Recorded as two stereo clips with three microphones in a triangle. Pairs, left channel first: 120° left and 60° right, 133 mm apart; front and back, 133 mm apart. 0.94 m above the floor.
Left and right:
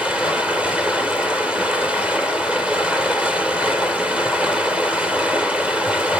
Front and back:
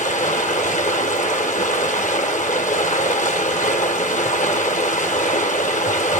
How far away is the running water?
About 1.4 m.